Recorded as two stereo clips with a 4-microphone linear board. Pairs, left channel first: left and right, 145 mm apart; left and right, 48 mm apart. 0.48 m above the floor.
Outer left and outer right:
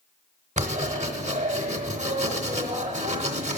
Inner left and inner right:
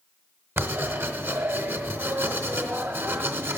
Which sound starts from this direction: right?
Writing, at 0.6 s.